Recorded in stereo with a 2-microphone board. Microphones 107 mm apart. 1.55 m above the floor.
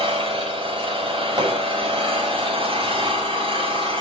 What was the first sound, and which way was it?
An engine running, 50° right (ahead or behind).